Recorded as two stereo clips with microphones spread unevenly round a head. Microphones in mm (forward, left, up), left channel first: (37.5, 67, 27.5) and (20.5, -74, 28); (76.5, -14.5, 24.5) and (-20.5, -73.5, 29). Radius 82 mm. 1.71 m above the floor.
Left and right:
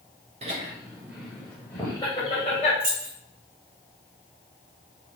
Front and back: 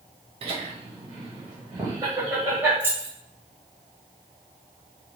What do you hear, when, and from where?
0.4 s laughter: 135° right, 0.9 m; by 2.7 s 135° left, 1.2 m
2.8 s keys jangling: 80° right, 1.3 m